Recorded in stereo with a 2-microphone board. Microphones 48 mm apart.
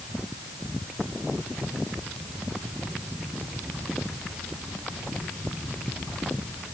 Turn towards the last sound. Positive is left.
No sound to turn to.